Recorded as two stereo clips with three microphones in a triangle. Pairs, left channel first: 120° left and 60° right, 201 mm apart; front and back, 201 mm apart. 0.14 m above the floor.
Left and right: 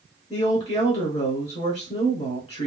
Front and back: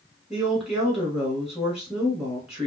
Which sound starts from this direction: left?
A woman speaking, at 0.3 s.